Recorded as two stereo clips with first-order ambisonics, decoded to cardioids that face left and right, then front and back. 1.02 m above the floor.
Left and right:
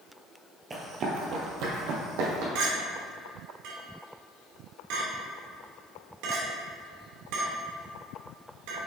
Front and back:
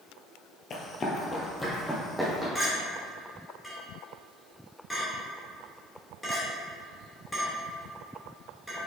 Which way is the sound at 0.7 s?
30° right.